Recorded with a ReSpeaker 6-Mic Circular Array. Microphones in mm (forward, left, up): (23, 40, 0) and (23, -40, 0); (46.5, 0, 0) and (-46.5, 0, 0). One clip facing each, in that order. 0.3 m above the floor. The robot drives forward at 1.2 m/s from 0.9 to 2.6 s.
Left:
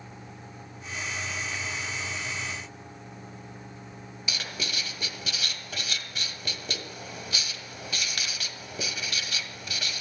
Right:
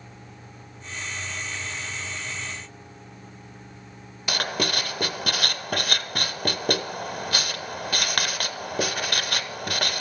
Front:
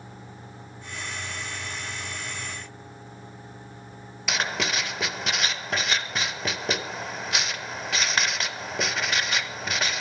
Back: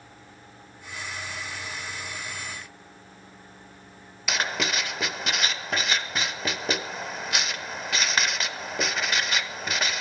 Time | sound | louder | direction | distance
4.3 | writing | right 10 dB, even | 90° right | 0.7 m